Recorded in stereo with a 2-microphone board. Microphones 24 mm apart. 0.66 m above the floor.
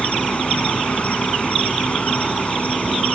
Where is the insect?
60° left (ahead or behind), 2.5 m.